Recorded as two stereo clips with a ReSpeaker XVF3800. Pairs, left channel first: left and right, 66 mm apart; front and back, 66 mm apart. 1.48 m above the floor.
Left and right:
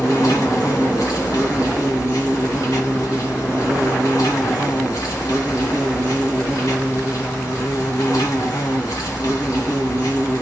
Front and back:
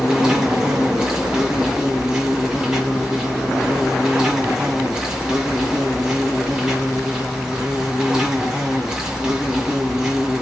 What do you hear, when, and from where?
0.0 s an insect: 110° left, 1.8 m